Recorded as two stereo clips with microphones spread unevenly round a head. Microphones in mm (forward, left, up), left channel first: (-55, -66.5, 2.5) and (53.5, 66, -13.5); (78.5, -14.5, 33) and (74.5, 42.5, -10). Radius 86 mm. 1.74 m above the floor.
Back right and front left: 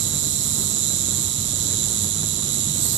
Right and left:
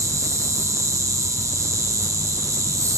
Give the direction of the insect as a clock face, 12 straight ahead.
9 o'clock.